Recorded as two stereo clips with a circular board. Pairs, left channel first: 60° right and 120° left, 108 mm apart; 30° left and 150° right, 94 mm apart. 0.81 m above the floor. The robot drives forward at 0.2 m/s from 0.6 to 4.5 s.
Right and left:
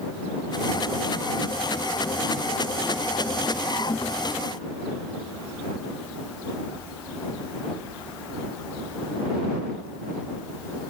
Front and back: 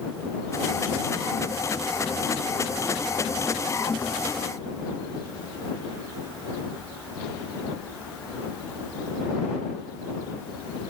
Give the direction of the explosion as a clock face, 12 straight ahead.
I don't hear an explosion.